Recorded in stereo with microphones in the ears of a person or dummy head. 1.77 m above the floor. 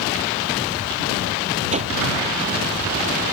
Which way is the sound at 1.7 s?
35° right (ahead or behind).